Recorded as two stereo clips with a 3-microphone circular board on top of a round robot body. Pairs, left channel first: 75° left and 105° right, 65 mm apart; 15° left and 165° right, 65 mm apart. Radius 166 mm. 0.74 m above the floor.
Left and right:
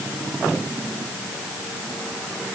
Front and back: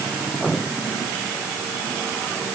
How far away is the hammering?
No hammering in this recording.